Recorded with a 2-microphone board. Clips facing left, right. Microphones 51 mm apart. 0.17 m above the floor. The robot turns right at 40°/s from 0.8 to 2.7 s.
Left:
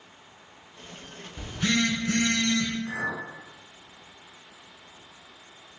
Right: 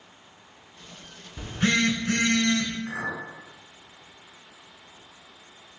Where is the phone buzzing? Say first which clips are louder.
Right 2 dB; 130° right, 0.9 m; by 2.8 s 80° right, 0.9 m.